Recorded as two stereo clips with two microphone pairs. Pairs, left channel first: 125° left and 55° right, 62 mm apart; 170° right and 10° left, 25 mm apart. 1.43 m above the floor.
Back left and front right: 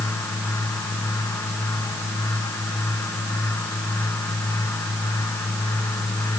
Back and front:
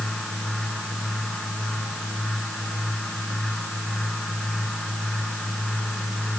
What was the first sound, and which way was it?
Only background noise.